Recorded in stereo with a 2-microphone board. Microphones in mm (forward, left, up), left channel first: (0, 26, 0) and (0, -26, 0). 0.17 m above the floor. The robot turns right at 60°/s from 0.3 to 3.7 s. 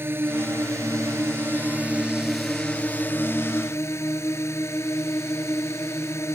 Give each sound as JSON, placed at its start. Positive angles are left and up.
{"t": 0.0, "sound": "a drone", "azimuth_deg": -125}